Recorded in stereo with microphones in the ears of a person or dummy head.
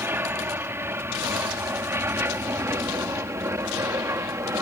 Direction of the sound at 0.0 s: 15° right (ahead or behind).